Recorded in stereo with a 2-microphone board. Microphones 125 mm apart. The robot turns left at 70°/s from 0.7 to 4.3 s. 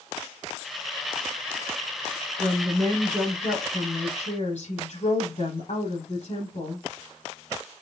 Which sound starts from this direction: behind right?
A woman speaking, at 2.4 s.